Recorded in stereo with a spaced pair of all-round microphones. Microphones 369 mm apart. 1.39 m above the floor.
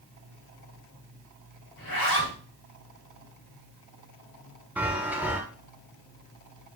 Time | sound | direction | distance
1.8 | a zipper | 55° left (ahead or behind) | 3.5 m
4.8 | a chime | 5° right (ahead or behind) | 1.3 m